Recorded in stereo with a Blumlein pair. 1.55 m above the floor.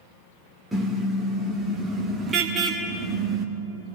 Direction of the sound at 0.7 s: 10° right.